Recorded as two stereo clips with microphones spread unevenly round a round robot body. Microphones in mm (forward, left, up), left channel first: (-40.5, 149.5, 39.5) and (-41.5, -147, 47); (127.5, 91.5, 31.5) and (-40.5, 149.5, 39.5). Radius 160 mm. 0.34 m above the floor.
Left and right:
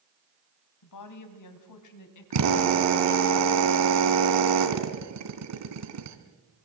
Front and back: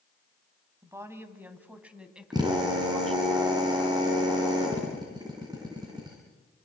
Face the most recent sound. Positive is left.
turn(degrees=-125)